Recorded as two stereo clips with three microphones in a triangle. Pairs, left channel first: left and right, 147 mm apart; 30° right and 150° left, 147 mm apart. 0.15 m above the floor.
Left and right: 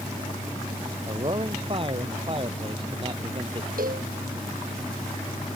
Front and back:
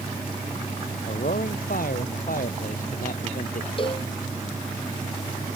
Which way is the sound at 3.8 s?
80° right.